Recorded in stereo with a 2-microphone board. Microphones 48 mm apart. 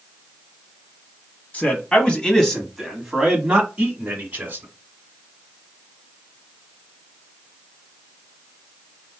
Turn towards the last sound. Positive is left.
turn(degrees=-40)  # may be behind; listen again after turning